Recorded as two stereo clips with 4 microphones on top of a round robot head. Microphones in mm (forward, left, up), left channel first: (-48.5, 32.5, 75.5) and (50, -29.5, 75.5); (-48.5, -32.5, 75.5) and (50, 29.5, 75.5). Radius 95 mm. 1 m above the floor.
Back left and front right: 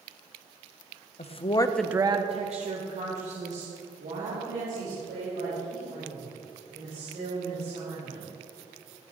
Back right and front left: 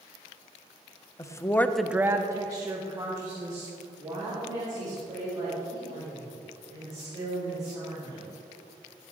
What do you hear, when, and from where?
1.2 s a woman speaking: 155° left, 1.0 m; by 8.2 s 25° right, 9 m